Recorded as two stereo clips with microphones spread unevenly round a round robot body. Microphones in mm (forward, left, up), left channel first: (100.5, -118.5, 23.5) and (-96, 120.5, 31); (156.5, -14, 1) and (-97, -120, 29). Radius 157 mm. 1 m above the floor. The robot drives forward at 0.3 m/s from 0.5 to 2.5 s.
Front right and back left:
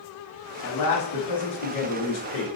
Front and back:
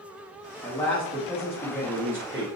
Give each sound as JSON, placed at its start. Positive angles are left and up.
{"t": 0.6, "sound": "a man speaking", "azimuth_deg": -55, "distance_m": 1.3}